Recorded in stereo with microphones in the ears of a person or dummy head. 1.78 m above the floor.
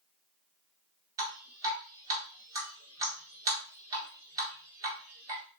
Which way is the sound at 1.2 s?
25° right (ahead or behind).